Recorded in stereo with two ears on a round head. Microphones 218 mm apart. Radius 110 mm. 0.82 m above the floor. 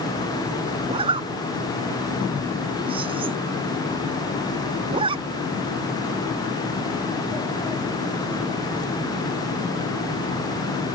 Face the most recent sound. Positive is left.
turn(degrees=-20)  # may be behind; listen again after turning